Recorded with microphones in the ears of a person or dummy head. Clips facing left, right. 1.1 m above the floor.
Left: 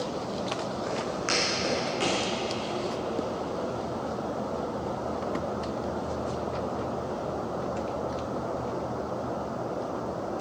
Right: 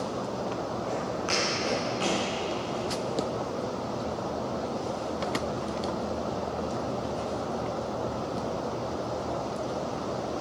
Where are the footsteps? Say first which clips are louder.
Even; 25° left (ahead or behind), 3.5 m; by 2.2 s 35° left (ahead or behind), 5 m.